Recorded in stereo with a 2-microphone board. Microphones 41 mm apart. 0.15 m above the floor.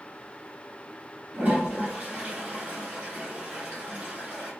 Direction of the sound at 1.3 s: 30° right (ahead or behind).